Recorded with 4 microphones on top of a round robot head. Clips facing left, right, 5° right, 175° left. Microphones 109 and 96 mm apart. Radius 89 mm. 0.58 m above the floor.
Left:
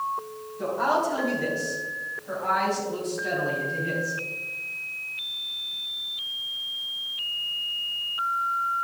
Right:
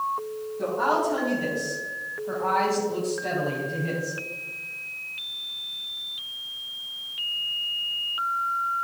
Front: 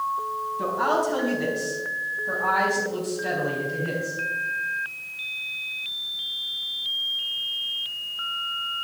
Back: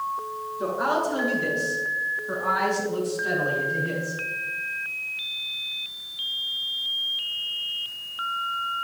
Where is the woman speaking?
10° right, 4.5 m; by 4.2 s 45° right, 4 m.